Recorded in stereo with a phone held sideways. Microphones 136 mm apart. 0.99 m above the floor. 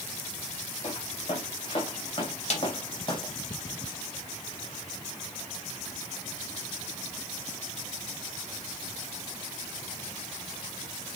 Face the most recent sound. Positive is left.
turn(degrees=55)  # may be behind; listen again after turning